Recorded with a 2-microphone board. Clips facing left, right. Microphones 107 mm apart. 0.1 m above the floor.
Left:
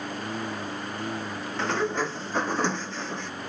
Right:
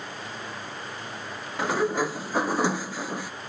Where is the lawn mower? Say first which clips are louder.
Left 5 dB; 55° left (ahead or behind).